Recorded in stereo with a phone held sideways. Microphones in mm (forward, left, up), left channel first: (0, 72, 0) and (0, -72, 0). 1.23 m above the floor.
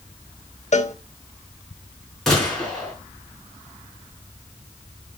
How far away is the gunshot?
About 4.5 m.